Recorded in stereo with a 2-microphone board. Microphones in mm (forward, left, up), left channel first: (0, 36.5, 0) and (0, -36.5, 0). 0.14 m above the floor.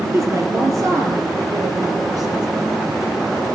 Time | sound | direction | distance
0.1 | a woman speaking | 40° right (ahead or behind) | 2.5 m